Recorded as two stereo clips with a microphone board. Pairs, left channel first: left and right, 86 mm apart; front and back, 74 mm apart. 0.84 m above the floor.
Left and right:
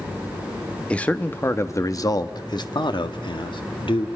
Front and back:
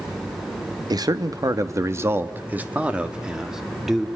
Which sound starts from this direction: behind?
A man speaking, at 0.9 s.